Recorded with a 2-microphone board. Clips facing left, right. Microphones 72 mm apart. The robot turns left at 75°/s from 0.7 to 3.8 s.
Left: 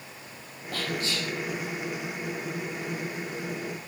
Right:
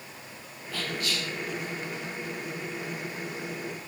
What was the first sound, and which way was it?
Whispering, 55° left.